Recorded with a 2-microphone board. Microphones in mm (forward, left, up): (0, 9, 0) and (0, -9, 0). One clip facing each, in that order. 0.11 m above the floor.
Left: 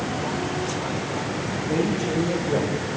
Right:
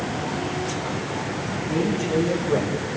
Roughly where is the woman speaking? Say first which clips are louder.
Even; centre.